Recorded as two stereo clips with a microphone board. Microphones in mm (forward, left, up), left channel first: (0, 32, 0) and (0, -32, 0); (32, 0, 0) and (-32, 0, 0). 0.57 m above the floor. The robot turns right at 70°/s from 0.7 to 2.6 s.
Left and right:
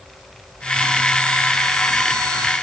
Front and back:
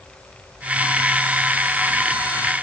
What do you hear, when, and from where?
Only background noise.